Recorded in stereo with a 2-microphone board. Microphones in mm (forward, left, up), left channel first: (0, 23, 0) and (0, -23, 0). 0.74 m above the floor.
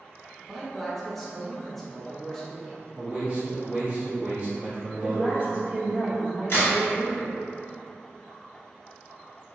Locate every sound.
0.4 s a man speaking: 5° left (ahead or behind), 0.7 m
3.0 s a man speaking: 25° right (ahead or behind), 1.0 m
5.0 s a woman speaking: 25° right (ahead or behind), 1.1 m
6.5 s a crack: 60° left (ahead or behind), 1.7 m